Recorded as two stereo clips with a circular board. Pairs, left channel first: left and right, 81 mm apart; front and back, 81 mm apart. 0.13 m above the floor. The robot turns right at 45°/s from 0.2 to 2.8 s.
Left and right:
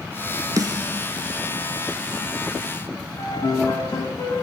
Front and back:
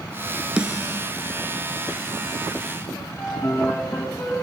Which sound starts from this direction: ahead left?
A piano, at 3.2 s.